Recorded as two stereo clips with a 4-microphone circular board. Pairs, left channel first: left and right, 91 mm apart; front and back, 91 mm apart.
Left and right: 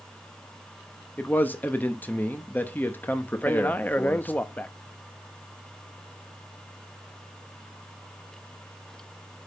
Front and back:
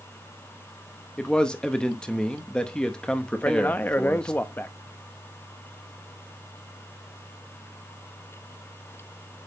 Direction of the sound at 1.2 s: 65° left.